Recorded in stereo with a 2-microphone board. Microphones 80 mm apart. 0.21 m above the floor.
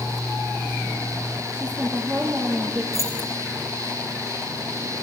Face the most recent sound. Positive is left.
turn(degrees=35)  # may be behind; listen again after turning